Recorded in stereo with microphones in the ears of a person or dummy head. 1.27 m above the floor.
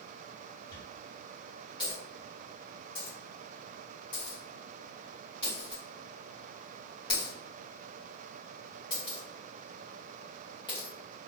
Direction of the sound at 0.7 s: 30° left (ahead or behind).